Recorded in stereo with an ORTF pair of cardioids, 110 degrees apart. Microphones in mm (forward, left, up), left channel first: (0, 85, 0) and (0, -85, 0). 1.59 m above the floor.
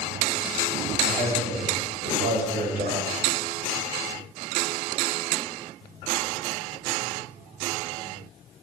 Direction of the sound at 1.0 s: 65° right.